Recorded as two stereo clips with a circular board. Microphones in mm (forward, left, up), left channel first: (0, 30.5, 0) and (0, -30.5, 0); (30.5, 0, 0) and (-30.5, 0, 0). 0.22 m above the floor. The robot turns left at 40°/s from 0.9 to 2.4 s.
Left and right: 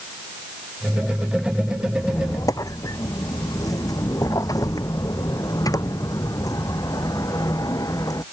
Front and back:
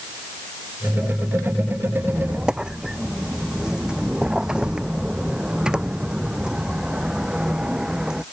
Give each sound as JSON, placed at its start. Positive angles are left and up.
{"t": 2.0, "sound": "a squeak", "azimuth_deg": 120}